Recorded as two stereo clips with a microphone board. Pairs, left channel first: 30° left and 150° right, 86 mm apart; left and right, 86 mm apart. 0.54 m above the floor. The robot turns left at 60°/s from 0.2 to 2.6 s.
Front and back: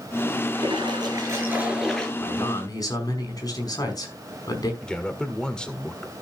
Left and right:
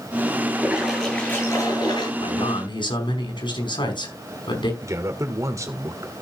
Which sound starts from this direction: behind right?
A splash, at 0.5 s.